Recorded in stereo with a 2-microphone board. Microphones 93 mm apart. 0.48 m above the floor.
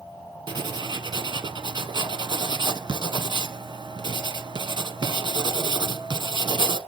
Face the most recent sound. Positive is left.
turn(degrees=-60)  # may be behind; listen again after turning